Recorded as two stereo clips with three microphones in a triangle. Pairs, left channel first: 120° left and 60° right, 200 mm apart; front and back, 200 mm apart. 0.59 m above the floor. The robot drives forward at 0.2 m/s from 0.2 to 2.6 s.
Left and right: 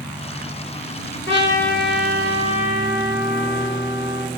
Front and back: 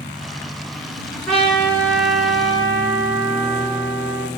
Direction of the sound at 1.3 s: 85° right.